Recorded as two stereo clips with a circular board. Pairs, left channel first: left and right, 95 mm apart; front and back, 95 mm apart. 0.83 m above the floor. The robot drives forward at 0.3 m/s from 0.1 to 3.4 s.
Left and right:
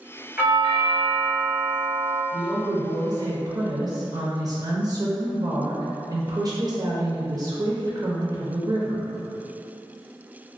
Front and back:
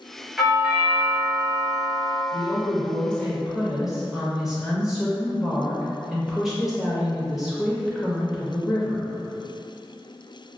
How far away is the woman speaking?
About 0.5 m.